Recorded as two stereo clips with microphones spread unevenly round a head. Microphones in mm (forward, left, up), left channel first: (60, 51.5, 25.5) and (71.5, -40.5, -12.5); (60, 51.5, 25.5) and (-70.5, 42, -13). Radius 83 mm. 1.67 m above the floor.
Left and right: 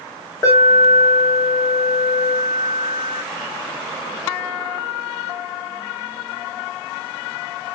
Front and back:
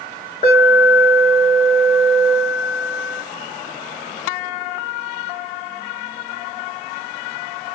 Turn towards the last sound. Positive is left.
turn(degrees=45)